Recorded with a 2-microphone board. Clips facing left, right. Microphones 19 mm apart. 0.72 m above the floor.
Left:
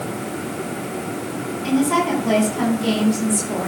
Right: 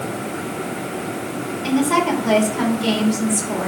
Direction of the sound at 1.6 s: 25° right (ahead or behind).